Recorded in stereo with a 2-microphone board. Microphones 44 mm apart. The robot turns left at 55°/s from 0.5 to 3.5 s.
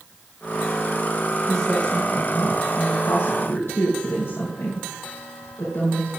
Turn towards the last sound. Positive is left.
turn(degrees=60)